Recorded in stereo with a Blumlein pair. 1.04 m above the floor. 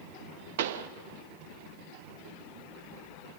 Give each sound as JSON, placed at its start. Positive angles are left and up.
{"t": 0.6, "sound": "a pop", "azimuth_deg": -50, "distance_m": 0.7}